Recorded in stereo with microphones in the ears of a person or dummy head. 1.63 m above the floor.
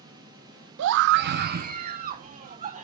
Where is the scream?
65° right (ahead or behind), 0.5 m; by 2.9 s 35° right (ahead or behind), 1.8 m.